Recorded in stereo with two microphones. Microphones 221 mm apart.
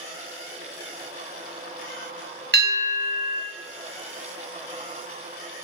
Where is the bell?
50° right (ahead or behind), 1.0 m.